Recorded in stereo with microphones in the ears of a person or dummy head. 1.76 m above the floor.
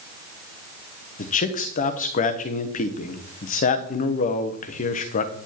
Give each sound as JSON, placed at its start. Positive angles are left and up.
{"t": 1.2, "sound": "a man speaking", "side_deg": 40, "distance_m": 1.1}